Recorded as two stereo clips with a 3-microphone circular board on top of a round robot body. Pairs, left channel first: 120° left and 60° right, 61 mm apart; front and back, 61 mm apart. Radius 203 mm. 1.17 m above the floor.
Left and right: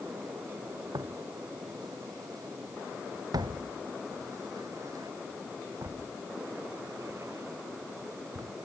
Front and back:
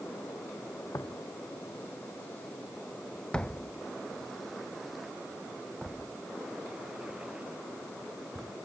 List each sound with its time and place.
0.9 s footsteps: 45° right; by 8.5 s 110° right